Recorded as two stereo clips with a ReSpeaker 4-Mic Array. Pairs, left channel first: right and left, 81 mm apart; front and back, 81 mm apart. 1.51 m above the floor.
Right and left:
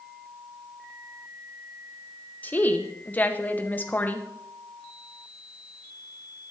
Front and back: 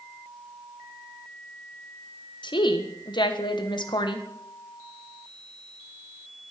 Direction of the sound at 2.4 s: 20° right.